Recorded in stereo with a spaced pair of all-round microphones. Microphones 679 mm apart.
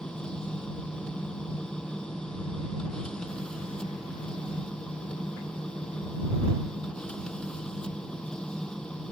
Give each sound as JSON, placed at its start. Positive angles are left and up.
{"t": 0.0, "sound": "a machine running", "side_deg": 0}